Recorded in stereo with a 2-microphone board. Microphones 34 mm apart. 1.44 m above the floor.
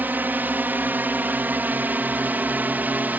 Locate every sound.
0.0 s a drone: 65° right (ahead or behind); by 3.2 s 55° right (ahead or behind)